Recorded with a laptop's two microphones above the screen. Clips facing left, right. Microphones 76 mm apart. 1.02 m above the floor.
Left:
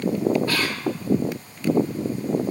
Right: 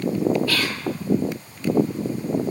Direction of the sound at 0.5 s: 30° left (ahead or behind).